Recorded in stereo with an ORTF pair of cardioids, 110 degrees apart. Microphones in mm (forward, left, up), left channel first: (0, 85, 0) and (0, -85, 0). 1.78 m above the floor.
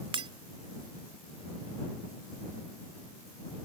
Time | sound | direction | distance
0.1 | breaking glass | 35° right | ?